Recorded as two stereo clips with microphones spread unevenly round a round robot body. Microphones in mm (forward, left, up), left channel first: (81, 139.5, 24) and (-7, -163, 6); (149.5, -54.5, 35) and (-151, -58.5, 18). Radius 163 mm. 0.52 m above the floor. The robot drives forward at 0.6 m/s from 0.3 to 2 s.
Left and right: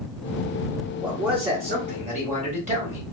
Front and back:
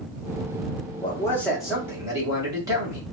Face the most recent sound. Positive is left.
turn(degrees=-120)